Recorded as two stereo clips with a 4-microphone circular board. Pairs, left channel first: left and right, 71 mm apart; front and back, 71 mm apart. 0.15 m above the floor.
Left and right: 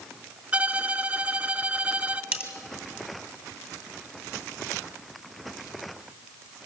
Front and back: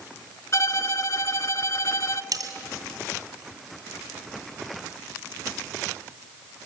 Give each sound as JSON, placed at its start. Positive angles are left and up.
{"t": 0.5, "sound": "a violin", "azimuth_deg": -25, "distance_m": 0.7}
{"t": 2.3, "sound": "cutlery clinking", "azimuth_deg": -155, "distance_m": 2.0}